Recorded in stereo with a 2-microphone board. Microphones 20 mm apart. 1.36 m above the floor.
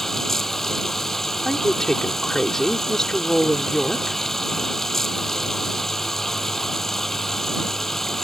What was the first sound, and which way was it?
Running water, 15° left (ahead or behind).